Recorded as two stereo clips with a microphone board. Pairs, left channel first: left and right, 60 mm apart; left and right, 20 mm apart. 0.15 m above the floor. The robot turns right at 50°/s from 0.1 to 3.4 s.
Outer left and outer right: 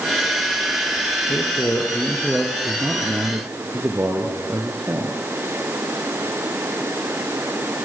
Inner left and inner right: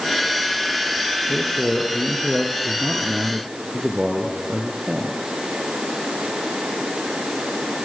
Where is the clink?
I don't hear a clink.